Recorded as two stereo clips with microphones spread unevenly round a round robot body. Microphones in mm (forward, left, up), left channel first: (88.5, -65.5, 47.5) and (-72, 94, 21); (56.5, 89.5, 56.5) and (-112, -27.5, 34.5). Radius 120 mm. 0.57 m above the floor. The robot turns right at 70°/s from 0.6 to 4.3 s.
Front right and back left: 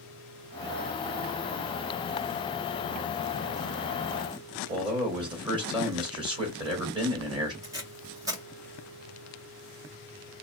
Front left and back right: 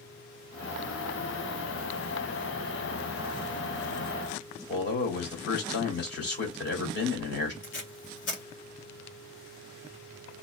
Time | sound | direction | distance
4.7 | a man speaking | 70° left | 2.5 m
7.6 | tape being pulled | 65° left | 2 m